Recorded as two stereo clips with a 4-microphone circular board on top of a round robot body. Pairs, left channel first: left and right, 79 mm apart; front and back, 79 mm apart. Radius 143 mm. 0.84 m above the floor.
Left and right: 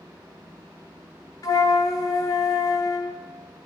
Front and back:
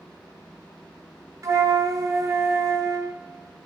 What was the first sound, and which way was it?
A flute, 135° left.